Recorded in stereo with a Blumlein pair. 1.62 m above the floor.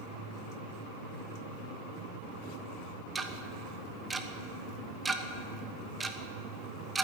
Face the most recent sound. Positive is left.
turn(degrees=-10)